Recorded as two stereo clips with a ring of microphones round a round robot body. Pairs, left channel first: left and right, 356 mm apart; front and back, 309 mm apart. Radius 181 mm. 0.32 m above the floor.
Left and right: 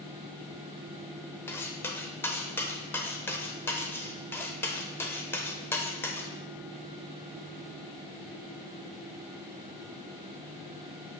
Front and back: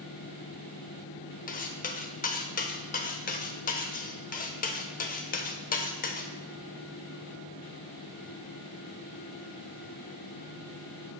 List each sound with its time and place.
1.5 s cutlery clinking: 15° left, 0.6 m